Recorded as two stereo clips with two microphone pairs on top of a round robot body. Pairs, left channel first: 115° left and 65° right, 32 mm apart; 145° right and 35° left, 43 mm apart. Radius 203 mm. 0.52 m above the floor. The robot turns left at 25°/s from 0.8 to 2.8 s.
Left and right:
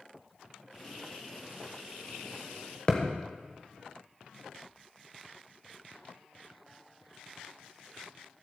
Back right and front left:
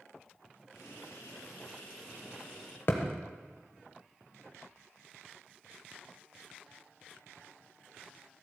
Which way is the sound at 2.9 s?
Straight behind.